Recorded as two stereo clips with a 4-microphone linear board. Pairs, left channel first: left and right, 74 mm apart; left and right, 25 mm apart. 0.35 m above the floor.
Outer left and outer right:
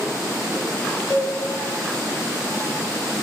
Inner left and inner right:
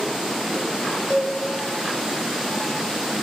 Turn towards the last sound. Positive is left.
turn(degrees=30)  # may be behind; listen again after turning